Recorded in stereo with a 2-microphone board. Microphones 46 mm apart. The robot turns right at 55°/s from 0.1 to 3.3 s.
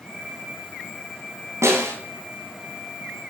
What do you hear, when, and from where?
1.6 s a snare drum: 75° right (ahead or behind), 2.5 m